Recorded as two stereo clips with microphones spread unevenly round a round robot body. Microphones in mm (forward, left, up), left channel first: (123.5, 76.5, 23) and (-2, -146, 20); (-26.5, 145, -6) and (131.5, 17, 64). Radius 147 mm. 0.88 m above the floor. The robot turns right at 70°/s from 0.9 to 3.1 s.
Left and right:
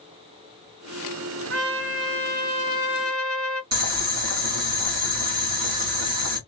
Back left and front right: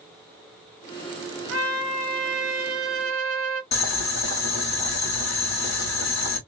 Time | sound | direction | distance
1.5 | a trumpet | 135° right | 1.1 m
3.7 | boiling | 160° right | 1.7 m